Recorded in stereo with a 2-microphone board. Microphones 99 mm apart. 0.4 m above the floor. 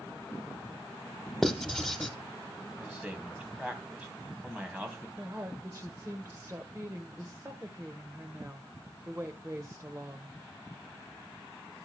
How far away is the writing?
About 0.8 m.